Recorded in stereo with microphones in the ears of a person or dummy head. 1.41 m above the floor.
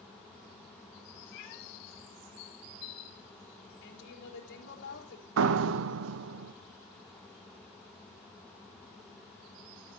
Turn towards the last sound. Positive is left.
turn(degrees=-70)  # may be behind; listen again after turning